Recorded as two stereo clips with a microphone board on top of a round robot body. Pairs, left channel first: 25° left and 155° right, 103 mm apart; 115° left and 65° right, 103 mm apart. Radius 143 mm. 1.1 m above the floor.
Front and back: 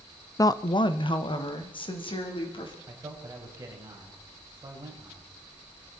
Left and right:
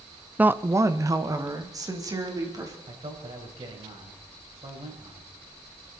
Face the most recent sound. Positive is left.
turn(degrees=-100)